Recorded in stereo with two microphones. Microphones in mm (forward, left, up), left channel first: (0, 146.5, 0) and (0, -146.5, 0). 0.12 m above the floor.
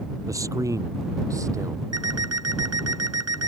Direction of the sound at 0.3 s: 10° right (ahead or behind).